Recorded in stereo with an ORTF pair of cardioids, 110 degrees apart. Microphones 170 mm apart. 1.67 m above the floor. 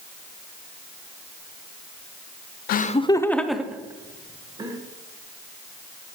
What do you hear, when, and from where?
2.7 s laughter: 60° left, 0.5 m; by 4.8 s 25° right, 1.8 m